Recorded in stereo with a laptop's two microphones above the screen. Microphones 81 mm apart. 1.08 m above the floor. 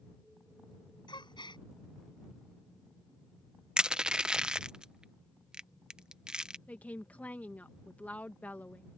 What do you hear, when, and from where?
1.1 s a gasp: 70° left (ahead or behind)
3.8 s crushing: 10° right (ahead or behind)
6.7 s a woman speaking: 20° left (ahead or behind)